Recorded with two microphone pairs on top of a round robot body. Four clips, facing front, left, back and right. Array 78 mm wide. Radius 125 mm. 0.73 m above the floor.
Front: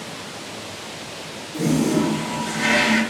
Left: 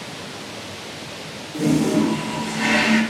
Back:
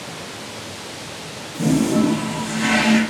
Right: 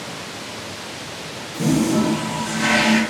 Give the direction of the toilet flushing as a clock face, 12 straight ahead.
10 o'clock.